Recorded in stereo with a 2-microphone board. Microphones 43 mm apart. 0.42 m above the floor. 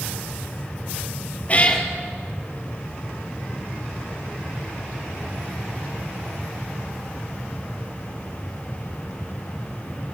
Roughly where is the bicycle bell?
No bicycle bell in this recording.